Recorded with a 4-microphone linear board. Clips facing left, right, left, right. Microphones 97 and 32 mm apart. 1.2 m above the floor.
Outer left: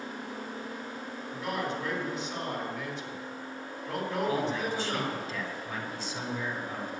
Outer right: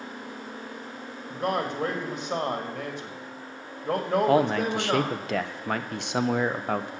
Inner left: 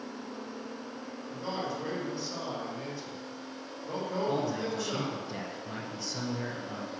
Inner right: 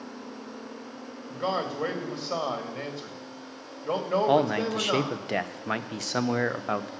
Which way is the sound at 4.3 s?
70° right (ahead or behind).